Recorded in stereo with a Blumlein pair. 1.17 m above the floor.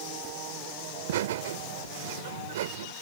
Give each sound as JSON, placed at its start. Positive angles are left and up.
{"t": 0.9, "sound": "laughter", "azimuth_deg": -55}